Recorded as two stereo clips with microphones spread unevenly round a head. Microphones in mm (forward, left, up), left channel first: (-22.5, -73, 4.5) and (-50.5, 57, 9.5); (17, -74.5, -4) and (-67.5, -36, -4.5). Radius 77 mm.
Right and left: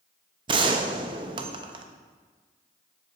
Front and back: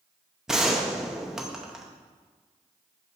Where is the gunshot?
70° left, 0.6 m.